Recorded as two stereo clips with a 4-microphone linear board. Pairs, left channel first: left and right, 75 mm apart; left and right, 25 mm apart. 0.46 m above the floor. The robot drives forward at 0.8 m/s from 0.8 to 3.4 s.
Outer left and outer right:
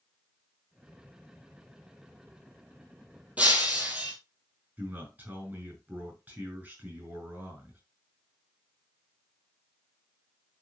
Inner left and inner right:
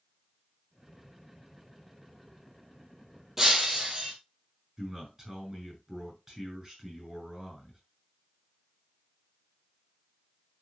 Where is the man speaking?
20° right (ahead or behind), 6.5 m.